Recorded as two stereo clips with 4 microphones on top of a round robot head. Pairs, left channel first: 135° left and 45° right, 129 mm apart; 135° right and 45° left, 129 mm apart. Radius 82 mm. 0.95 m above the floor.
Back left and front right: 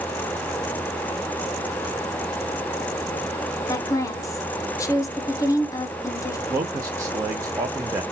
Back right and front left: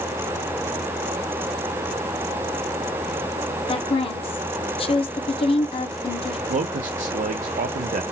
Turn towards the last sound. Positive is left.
turn(degrees=20)